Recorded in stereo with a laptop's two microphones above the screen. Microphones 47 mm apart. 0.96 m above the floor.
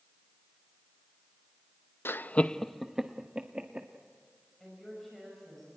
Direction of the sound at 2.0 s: 55° left (ahead or behind).